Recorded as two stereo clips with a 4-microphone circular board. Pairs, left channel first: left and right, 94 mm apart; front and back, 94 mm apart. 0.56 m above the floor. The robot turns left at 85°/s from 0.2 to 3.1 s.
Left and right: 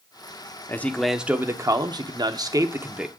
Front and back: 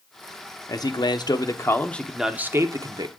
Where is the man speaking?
35° left, 0.9 m; by 3.1 s 170° right, 0.9 m.